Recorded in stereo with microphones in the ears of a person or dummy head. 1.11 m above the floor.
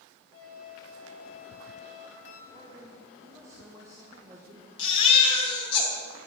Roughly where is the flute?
Left.